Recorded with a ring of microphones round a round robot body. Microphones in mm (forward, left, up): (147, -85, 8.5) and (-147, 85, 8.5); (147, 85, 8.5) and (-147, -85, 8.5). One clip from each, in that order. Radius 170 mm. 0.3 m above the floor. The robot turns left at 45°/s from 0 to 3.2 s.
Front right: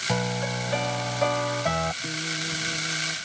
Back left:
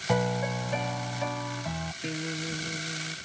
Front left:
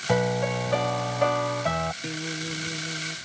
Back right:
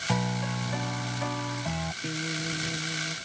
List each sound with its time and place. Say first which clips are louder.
0.1 s a piano: back left 4 dB, front left 11 dB; 75° left; by 1.9 s 10° right
2.0 s a guitar: front right 5 dB, even; 95° left; by 3.2 s 45° left